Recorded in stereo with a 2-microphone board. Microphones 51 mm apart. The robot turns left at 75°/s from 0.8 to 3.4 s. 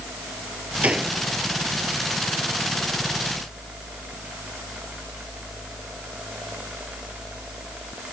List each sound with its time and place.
0.8 s a gunshot: 30° right (ahead or behind); by 1.2 s centre (ahead or behind)